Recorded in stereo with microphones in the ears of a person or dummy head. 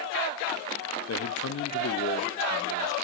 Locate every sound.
1.1 s a man speaking: 65° left (ahead or behind), 0.6 m; by 2.9 s 25° left (ahead or behind), 0.9 m